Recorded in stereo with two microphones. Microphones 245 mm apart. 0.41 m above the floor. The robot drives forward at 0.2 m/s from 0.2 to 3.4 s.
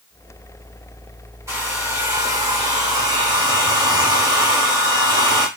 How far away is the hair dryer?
About 0.9 m.